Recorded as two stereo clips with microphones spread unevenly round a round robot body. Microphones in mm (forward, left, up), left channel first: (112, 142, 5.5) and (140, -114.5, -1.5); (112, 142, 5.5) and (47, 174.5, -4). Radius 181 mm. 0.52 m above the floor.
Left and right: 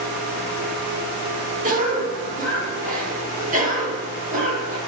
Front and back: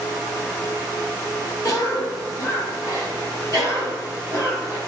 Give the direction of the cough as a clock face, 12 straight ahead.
2 o'clock.